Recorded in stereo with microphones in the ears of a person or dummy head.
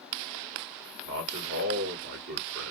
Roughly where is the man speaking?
Right.